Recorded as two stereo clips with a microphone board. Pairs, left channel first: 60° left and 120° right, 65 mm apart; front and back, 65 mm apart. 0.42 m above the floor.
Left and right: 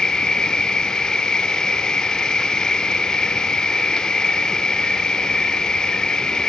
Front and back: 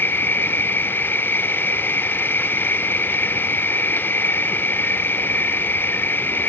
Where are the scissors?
I don't hear scissors.